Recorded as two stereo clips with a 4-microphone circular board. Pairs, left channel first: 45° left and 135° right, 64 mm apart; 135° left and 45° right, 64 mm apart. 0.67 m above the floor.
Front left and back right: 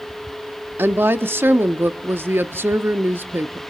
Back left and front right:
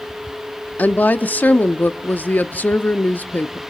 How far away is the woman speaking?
About 0.7 m.